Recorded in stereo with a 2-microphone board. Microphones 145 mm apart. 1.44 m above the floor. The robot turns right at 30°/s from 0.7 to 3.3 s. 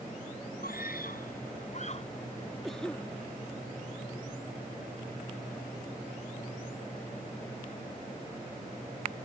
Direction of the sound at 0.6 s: 95° left.